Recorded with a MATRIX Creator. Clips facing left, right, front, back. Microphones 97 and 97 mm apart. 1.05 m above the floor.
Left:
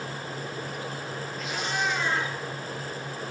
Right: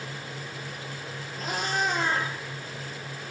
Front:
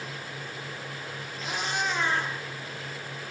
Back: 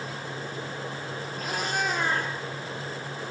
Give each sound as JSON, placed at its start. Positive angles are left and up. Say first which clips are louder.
{"t": 1.4, "sound": "a cat meowing", "louder": "right 2 dB, back 1 dB", "azimuth_deg": -140, "distance_m": 6.5}